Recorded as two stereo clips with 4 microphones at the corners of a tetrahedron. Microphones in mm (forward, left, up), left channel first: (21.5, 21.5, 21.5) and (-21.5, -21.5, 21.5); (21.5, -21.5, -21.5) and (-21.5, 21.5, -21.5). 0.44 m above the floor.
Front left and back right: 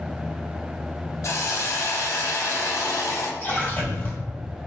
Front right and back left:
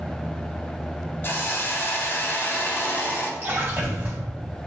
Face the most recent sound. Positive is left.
turn(degrees=85)